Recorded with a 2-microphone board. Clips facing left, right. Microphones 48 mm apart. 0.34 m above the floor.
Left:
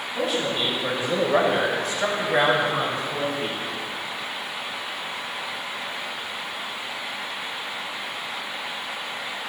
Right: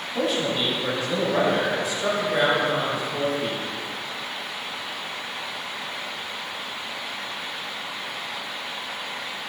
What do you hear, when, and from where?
0.1 s a man speaking: 10° right (ahead or behind), 1.8 m; by 3.6 s 50° left (ahead or behind), 3.5 m